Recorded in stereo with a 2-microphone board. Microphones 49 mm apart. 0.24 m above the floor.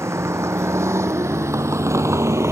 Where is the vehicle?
75° right (ahead or behind).